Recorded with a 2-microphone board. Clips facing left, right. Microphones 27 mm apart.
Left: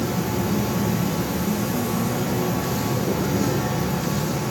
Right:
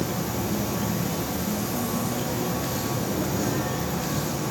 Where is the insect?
30° left (ahead or behind), 3 m.